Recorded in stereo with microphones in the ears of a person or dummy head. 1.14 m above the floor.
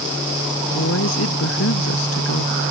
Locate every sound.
0.7 s a woman speaking: 80° left; by 2.5 s 85° left